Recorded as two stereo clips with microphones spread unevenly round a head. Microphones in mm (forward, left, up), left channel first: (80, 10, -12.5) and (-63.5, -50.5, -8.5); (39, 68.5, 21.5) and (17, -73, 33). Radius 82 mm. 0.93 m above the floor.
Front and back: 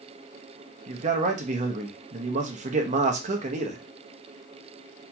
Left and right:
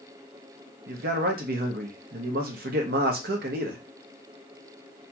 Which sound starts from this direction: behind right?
A man speaking, at 0.9 s.